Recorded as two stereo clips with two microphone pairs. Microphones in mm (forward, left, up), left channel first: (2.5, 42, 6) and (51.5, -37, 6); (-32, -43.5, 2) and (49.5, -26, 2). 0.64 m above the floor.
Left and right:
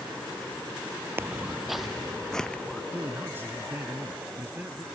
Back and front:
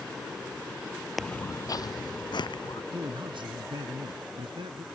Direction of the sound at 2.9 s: 10° left.